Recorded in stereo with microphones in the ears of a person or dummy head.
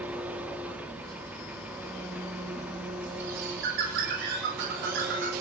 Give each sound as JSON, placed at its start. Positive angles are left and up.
{"t": 0.0, "sound": "an engine running", "side_deg": -5, "distance_m": 3.5}
{"t": 3.2, "sound": "a bird", "side_deg": -50, "distance_m": 8.5}